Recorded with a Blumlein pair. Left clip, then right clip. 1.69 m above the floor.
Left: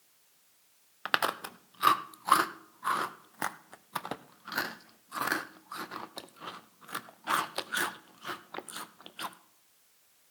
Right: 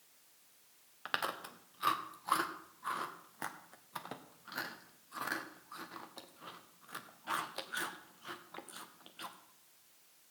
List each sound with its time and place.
1.1 s chewing: 65° left, 0.6 m